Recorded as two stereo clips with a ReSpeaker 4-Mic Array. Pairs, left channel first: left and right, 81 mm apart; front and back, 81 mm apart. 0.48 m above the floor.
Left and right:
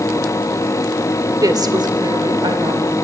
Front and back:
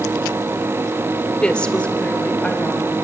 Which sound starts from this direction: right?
A woman speaking, at 1.4 s.